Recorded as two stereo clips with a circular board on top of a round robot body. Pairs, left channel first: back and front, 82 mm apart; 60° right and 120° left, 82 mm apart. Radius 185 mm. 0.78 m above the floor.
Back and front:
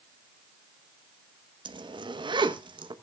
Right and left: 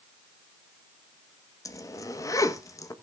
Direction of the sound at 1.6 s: 10° right.